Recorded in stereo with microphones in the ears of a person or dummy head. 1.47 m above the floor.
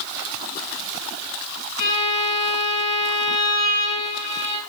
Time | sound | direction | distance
1.8 | a violin | 35° left (ahead or behind) | 4 m